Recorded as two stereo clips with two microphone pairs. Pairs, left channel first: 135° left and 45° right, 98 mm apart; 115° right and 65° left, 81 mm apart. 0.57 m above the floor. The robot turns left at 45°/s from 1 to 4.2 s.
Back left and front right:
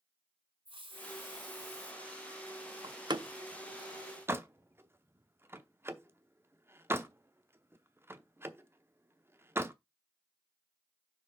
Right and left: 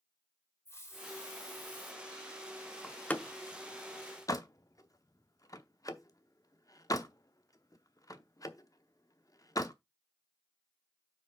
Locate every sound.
0.7 s a hiss: 60° right, 1.9 m; by 1.9 s 100° right, 1.9 m
2.8 s a door slam: 35° right, 0.7 m; by 9.8 s 95° right, 0.7 m